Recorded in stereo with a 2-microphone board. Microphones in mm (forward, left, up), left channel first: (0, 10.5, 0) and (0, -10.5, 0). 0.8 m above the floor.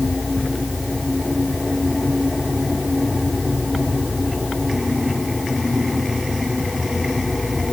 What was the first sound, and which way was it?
Only background noise.